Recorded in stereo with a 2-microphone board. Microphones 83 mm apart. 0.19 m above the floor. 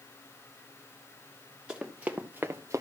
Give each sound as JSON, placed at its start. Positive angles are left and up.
{"t": 1.7, "sound": "running footsteps", "side_deg": -10, "distance_m": 1.9}